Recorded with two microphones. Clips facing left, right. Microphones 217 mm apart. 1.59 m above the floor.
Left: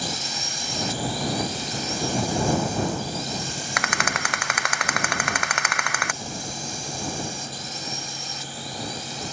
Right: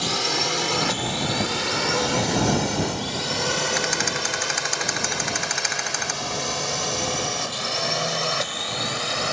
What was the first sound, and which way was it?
A drone, 85° right.